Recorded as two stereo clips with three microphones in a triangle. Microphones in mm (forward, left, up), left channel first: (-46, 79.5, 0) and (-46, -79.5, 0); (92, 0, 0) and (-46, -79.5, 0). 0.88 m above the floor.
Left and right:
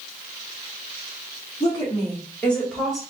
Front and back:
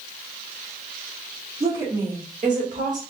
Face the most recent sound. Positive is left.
turn(degrees=180)